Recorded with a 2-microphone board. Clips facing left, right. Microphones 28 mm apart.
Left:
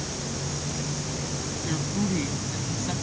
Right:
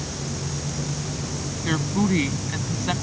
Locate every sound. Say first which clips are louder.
1.6 s a woman speaking: right 6 dB; 45° right (ahead or behind)